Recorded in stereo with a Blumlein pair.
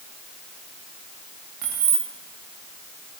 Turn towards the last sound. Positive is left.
turn(degrees=-40)